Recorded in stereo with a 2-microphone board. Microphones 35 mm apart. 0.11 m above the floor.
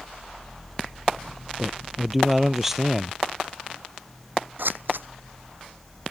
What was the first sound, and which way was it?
A man speaking, 10° right (ahead or behind).